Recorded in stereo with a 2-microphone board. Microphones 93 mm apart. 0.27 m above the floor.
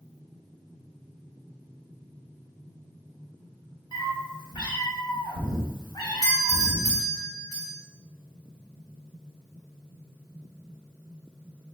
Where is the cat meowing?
50° left (ahead or behind), 1.0 m.